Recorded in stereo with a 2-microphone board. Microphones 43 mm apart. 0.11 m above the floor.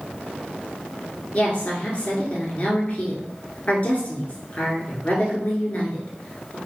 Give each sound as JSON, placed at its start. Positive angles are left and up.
{"t": 1.3, "sound": "a woman speaking", "side_deg": 35, "distance_m": 1.8}